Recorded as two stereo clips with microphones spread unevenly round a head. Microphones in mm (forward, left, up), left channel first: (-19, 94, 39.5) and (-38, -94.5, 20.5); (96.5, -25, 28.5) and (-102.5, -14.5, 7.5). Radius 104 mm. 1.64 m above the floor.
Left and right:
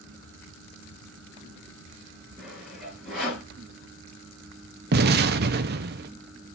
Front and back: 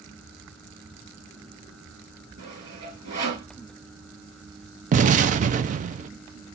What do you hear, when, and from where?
2.4 s sawing: 175° left, 5.5 m
4.9 s an explosion: 130° right, 0.7 m